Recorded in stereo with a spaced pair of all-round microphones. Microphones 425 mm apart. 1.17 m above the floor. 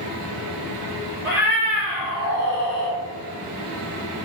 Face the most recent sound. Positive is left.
turn(degrees=-35)  # may be behind; listen again after turning